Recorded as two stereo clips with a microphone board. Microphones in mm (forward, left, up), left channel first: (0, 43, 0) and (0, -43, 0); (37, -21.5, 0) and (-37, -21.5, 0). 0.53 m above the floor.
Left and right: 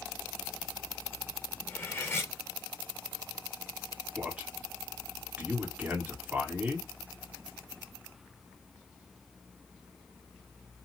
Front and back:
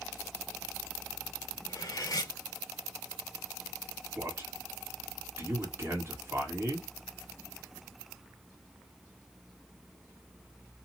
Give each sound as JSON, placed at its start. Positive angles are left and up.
{"t": 1.7, "sound": "cutlery clinking", "azimuth_deg": 30, "distance_m": 0.9}
{"t": 4.2, "sound": "a man speaking", "azimuth_deg": -160, "distance_m": 1.5}